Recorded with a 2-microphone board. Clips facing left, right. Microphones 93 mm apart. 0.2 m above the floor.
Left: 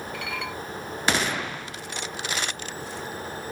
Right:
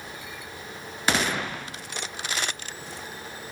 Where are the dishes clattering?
75° left (ahead or behind).